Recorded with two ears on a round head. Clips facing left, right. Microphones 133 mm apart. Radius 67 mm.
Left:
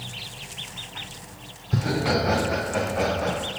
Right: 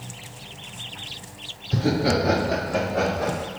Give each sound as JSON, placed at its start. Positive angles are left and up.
{"t": 1.7, "sound": "laughter", "side_deg": -40, "distance_m": 1.5}